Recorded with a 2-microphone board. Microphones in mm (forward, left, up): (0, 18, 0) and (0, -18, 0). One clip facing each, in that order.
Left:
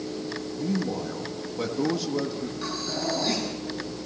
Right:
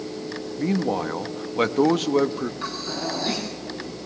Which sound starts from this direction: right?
A man speaking, at 0.6 s.